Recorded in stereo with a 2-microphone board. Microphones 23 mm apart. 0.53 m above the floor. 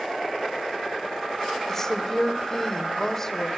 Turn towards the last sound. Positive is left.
turn(degrees=20)  # may be behind; listen again after turning